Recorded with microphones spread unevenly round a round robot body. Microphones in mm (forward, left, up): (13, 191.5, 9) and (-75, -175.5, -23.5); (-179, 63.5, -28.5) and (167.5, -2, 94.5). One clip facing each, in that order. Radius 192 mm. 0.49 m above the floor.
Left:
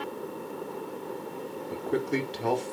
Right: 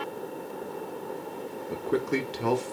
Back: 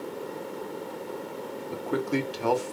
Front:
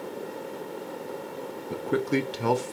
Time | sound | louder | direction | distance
1.7 | a man speaking | right 1 dB, front 2 dB | 80° right | 0.7 m